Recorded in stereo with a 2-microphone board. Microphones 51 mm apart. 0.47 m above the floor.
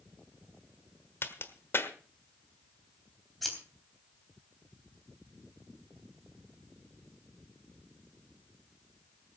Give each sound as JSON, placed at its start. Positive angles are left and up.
{"t": 1.2, "sound": "a crack", "side_deg": 55, "distance_m": 1.4}
{"t": 3.4, "sound": "scissors", "side_deg": 0, "distance_m": 3.5}